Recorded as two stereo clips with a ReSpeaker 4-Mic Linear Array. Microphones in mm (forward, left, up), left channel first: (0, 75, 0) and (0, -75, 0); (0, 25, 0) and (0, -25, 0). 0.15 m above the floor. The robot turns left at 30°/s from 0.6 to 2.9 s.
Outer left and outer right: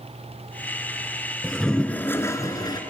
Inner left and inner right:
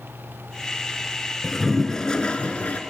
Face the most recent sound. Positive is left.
turn(degrees=135)